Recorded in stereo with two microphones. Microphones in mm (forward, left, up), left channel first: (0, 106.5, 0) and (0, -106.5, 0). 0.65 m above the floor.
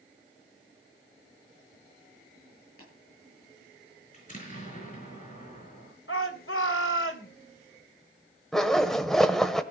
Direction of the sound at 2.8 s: 45° left (ahead or behind).